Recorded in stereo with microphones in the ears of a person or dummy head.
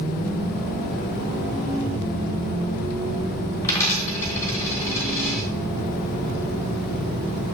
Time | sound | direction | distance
3.6 | a dropped coin | 15° left (ahead or behind) | 1.5 m